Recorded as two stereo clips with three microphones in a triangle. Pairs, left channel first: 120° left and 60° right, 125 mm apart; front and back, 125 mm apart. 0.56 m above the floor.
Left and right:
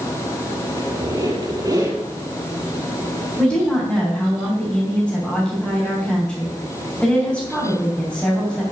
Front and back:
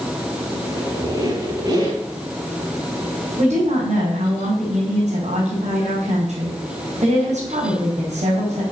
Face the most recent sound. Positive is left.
turn(degrees=-160)